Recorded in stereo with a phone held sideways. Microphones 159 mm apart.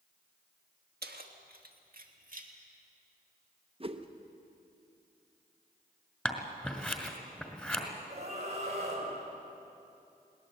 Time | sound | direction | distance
1.0 | keys jangling | 85° right | 1.4 m
3.8 | a whoosh | 35° right (ahead or behind) | 0.9 m
6.2 | scissors | 10° left (ahead or behind) | 2.0 m
8.1 | a scream | 45° right (ahead or behind) | 6 m